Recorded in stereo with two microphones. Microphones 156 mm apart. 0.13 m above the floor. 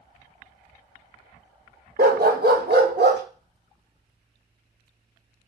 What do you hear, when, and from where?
2.0 s a dog barking: 70° right (ahead or behind), 0.7 m; by 3.2 s 80° right, 1.7 m